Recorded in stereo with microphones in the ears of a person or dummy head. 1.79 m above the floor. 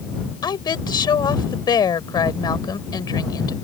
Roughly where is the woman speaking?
Left.